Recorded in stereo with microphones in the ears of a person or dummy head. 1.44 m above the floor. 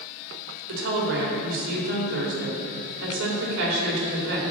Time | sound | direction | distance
0.7 | a woman speaking | 75° right (ahead or behind) | 3.5 m